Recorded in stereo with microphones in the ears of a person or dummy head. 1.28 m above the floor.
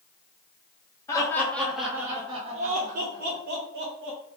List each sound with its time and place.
1.1 s laughter: 20° left (ahead or behind), 1.1 m; by 4.2 s 80° right, 1.5 m